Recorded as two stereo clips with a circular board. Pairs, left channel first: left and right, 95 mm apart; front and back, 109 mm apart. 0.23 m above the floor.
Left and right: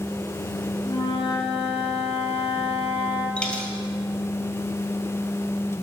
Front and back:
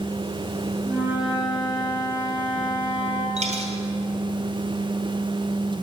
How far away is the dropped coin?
About 2 m.